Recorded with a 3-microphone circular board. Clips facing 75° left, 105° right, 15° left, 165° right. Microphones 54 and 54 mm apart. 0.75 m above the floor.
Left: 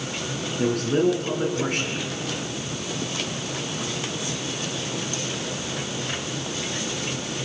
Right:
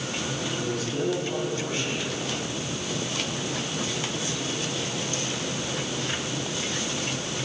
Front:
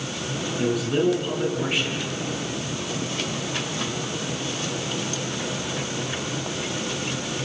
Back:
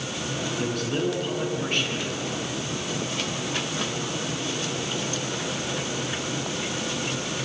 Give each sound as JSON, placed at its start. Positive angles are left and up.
{"t": 0.6, "sound": "a man speaking", "azimuth_deg": 95, "distance_m": 9.0}